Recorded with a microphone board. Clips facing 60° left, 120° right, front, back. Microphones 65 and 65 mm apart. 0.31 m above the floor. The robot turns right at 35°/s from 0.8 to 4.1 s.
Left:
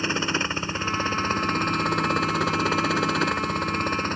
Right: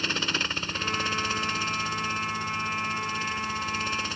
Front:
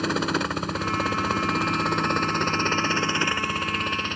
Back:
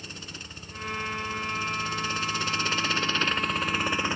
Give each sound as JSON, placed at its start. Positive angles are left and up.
{"t": 0.0, "sound": "a helicopter", "azimuth_deg": -5}